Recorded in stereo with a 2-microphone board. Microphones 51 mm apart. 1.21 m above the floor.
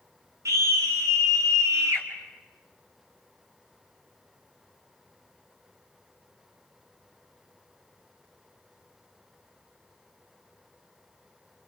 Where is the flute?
No flute in this recording.